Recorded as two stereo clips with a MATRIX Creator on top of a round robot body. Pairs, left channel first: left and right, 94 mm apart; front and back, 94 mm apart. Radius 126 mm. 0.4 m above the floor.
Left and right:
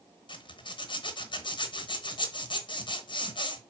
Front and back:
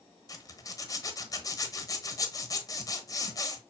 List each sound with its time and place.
0.3 s a zipper: 55° left, 1.1 m